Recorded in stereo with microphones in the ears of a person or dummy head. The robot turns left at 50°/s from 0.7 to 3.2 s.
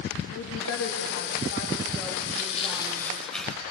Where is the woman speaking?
85° left, 1.9 m; by 3.2 s 40° right, 1.9 m.